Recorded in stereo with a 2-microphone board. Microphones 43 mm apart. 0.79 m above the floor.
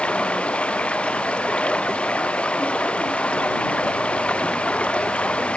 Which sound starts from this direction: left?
Running water, at 0.0 s.